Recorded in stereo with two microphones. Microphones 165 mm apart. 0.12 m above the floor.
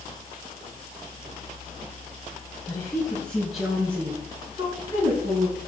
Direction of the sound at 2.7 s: 20° left (ahead or behind).